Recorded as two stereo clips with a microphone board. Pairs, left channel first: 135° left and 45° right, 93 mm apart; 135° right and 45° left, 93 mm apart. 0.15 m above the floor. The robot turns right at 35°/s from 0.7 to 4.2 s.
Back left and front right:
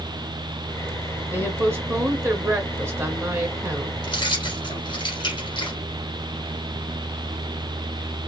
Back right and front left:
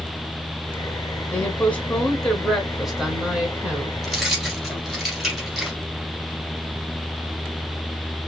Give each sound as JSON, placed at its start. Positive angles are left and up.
{"t": 1.3, "sound": "a woman speaking", "azimuth_deg": -90, "distance_m": 1.8}
{"t": 4.0, "sound": "keys jangling", "azimuth_deg": 130, "distance_m": 2.0}